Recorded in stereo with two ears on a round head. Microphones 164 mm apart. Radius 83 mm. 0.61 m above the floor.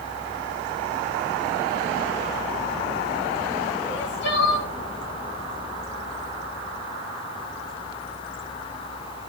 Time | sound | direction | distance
3.9 | crying | 75° left (ahead or behind) | 3 m